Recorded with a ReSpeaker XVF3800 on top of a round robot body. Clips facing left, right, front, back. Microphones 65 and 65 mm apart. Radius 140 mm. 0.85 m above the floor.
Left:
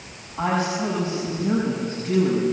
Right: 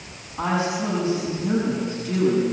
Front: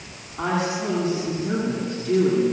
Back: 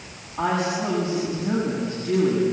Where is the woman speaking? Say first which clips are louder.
Left 1 dB, back 1 dB; 145° left, 7.5 m.